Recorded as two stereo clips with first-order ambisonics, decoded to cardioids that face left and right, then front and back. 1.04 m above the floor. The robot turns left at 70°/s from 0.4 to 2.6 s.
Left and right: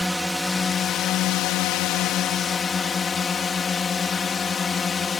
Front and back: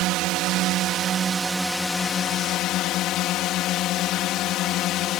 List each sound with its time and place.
0.0 s a drone: 175° left; by 5.2 s 25° left